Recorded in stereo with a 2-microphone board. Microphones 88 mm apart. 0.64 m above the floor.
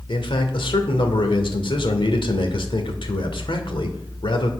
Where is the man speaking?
70° left (ahead or behind), 1.8 m.